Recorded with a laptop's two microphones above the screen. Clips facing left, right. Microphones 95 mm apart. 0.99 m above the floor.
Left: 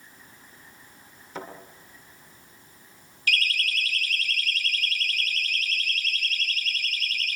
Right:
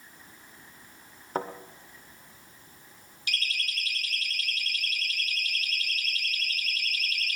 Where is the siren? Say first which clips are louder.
Left 7 dB; 20° right (ahead or behind), 3.5 m; by 7.4 s 10° right (ahead or behind), 5.5 m.